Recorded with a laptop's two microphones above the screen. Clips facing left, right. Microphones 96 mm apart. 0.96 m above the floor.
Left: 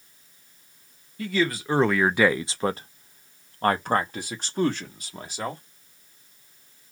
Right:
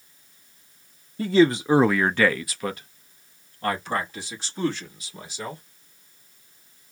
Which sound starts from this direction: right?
A man speaking, at 1.2 s.